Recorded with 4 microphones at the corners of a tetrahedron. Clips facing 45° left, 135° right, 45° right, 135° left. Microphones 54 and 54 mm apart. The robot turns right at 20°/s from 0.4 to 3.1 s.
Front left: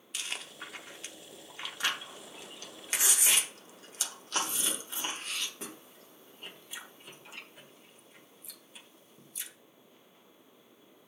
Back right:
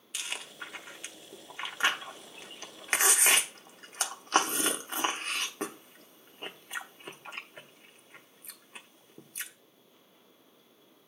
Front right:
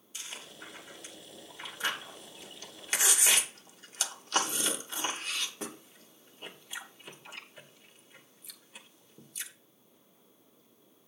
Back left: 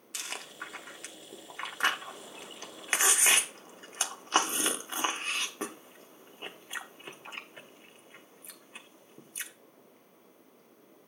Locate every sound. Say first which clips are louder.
0.1 s chewing: back right 1 dB, back left 5 dB; 135° left, 0.9 m; by 9.5 s 170° right, 0.9 m